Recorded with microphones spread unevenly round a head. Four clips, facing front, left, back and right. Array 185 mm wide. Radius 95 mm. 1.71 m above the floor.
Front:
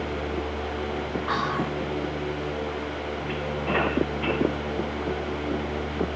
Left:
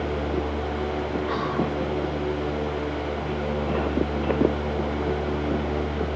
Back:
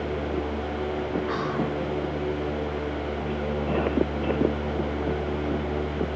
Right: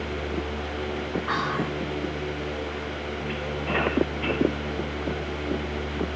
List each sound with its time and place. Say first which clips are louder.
1.3 s whispering: even, even; 30° right, 0.6 m